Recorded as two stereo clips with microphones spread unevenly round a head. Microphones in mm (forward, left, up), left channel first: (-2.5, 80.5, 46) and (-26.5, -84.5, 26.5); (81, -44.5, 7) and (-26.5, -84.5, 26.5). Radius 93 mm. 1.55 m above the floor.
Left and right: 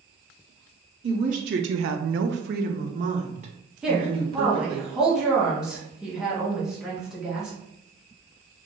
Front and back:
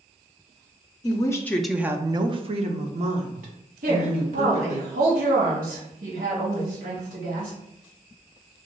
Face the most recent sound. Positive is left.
turn(degrees=175)